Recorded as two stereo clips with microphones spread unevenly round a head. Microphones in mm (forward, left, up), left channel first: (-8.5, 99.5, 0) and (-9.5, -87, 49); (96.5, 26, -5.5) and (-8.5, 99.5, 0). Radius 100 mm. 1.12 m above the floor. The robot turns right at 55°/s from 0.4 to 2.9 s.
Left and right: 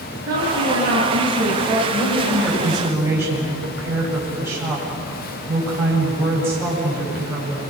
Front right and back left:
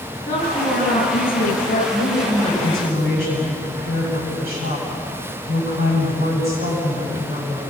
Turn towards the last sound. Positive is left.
turn(degrees=-170)